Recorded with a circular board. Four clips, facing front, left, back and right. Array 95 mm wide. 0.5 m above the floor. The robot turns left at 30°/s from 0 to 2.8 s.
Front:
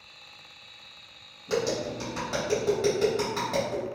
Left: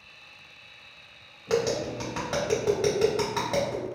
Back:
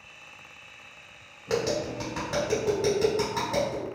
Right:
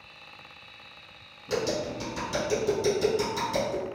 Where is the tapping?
120° left, 1.6 m; by 3.9 s 80° left, 1.6 m.